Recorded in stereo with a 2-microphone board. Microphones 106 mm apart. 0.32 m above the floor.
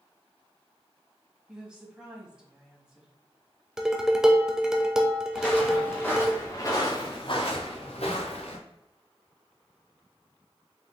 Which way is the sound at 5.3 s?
10° left (ahead or behind).